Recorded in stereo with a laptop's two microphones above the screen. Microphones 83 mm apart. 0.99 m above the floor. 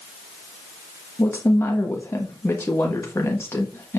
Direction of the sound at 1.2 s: 30° left (ahead or behind).